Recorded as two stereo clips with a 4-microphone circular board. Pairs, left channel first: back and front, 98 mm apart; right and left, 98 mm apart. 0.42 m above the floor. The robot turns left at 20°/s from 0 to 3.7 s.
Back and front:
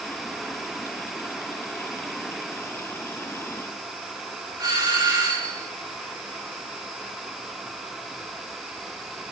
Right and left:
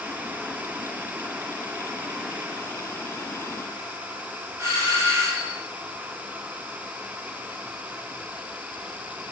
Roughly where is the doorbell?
Ahead left.